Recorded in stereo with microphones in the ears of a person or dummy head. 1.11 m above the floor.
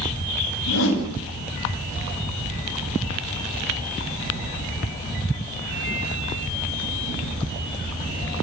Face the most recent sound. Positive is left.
turn(degrees=70)  # may be behind; listen again after turning